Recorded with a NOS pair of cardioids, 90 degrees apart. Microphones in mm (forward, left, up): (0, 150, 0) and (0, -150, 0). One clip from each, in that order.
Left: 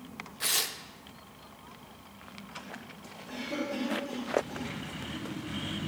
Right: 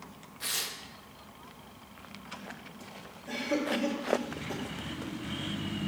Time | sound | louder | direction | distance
0.4 | tearing paper | left 4 dB | 25° left | 0.6 m
3.3 | a cough | right 4 dB | 60° right | 2.5 m